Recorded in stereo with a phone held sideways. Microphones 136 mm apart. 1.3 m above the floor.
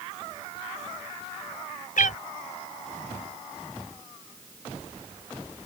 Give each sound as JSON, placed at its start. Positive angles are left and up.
{"t": 2.0, "sound": "a cat meowing", "side_deg": 75}